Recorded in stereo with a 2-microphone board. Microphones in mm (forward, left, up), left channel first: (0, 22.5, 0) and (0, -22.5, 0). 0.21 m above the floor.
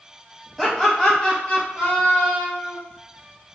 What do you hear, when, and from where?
0.6 s laughter: 10° left (ahead or behind), 1.0 m; by 2.8 s 35° left (ahead or behind), 1.4 m